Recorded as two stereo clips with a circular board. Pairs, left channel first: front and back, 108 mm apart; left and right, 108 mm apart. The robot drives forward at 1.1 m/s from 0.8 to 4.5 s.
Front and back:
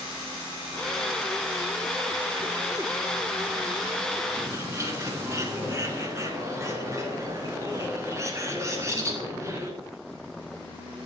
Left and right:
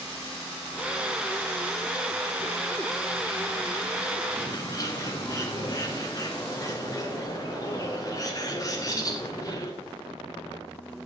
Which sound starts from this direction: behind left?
A bird, at 4.4 s.